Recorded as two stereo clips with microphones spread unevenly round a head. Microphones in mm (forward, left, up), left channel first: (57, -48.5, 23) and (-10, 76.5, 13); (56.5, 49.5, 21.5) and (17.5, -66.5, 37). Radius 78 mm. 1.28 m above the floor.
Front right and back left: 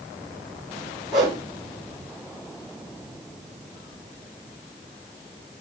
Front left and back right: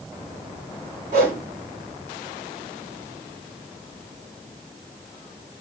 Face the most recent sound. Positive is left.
turn(degrees=-150)